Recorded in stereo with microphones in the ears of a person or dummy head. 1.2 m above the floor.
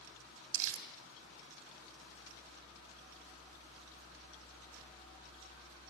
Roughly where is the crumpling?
Right.